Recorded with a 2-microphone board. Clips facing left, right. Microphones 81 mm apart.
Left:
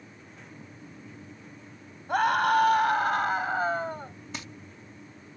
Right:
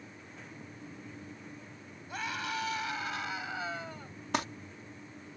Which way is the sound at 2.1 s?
60° left (ahead or behind).